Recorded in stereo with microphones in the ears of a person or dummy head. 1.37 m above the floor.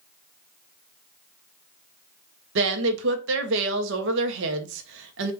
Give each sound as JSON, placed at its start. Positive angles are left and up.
{"t": 2.5, "sound": "a woman speaking", "side_deg": -70, "distance_m": 0.8}